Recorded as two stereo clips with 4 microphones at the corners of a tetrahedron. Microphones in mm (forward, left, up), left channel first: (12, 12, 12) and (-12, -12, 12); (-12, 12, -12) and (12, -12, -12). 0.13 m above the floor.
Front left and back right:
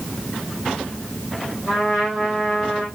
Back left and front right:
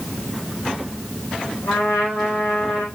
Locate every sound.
1.7 s a trumpet: 125° left, 4 m